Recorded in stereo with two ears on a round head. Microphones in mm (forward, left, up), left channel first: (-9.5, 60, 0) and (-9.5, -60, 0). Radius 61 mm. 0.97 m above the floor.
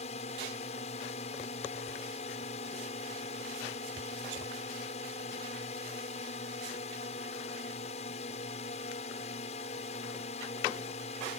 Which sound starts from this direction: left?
A drone, at 0.0 s.